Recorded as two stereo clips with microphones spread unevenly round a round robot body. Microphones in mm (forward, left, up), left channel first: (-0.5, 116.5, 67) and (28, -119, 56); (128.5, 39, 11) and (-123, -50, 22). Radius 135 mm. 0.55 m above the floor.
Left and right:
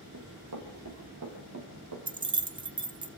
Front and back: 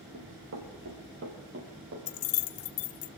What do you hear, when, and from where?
0.1 s running footsteps: 115° right, 5.5 m; by 2.0 s 110° right, 6 m
2.1 s keys jangling: 15° right, 0.8 m